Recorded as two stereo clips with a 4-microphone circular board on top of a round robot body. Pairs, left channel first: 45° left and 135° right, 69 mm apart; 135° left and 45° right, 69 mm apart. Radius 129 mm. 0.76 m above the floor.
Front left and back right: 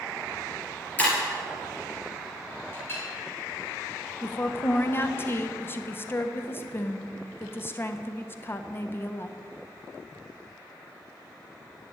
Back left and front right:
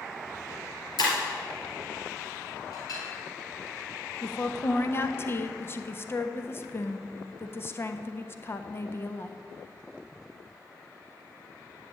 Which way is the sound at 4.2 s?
90° left.